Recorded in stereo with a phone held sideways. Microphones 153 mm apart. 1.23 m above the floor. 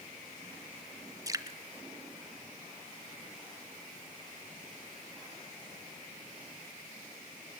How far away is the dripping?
About 1.0 m.